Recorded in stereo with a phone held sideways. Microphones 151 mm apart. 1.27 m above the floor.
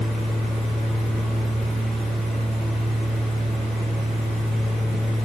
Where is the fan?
Centre (ahead or behind), 1.8 m.